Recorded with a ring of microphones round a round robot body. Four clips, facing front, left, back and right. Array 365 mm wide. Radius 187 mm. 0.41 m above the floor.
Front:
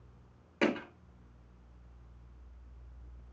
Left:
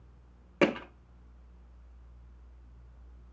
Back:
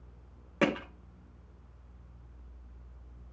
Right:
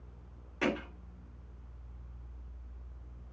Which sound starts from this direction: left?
Hammering, at 0.6 s.